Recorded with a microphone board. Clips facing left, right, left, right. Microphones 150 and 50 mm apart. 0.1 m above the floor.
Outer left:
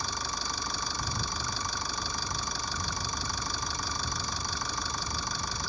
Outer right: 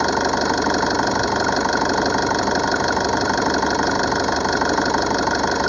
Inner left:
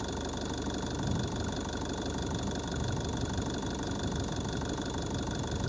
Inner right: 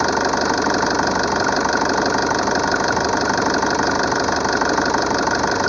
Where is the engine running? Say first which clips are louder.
Outer right 20 dB, inner right 19 dB; 75° right (ahead or behind).